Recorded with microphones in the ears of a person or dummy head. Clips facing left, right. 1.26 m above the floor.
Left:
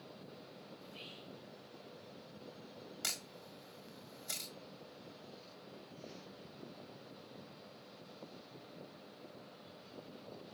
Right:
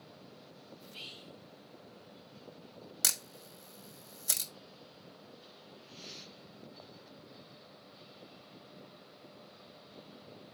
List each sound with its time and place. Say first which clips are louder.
0.8 s whispering: even; 60° right (ahead or behind), 1.6 m
3.0 s a camera shutter: right 1 dB; 70° right (ahead or behind), 1.3 m